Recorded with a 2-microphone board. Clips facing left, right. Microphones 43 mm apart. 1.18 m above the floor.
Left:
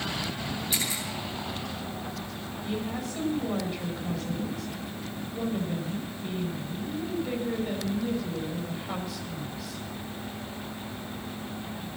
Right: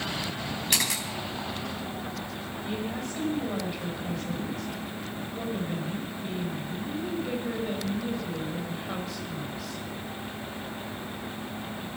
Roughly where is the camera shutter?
Right.